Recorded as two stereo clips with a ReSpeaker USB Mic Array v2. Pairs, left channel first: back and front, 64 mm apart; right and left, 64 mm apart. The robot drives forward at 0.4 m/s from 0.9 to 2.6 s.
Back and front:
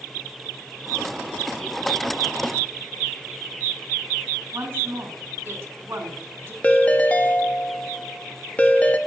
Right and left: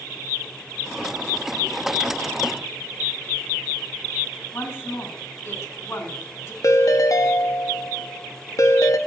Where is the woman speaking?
55° right, 1.8 m.